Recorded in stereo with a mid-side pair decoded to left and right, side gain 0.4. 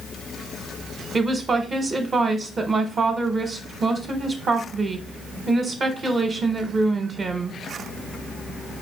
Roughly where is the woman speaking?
Ahead right.